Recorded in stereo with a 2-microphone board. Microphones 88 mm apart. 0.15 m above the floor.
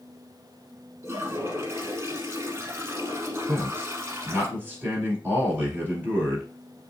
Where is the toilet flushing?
30° right (ahead or behind), 0.9 m.